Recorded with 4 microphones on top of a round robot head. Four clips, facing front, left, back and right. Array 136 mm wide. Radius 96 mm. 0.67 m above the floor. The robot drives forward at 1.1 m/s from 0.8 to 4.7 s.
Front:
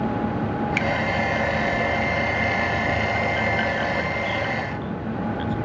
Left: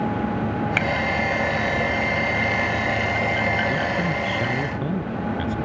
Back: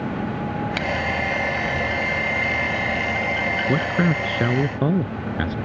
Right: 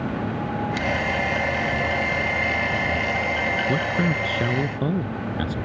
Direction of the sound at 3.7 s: 165° right.